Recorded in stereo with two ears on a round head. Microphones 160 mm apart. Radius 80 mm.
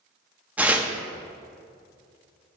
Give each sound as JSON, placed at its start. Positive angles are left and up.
{"t": 0.6, "sound": "tearing paper", "side_deg": -10, "distance_m": 0.6}